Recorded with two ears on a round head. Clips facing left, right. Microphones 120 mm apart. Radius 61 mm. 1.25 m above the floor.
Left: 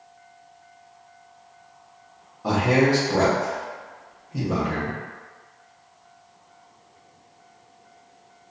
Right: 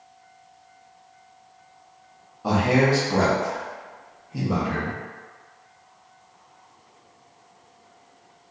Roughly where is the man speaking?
Centre.